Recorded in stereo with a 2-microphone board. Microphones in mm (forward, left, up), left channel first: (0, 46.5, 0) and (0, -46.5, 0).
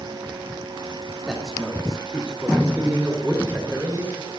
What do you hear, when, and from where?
1.3 s a man speaking: 5° right (ahead or behind), 2.5 m; by 4.3 s 25° right (ahead or behind), 4 m